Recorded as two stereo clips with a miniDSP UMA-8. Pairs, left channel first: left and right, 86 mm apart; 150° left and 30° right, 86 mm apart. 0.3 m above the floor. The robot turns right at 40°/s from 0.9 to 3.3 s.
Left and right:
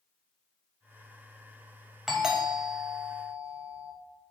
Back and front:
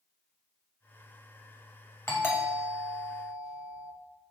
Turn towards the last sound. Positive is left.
turn(degrees=-125)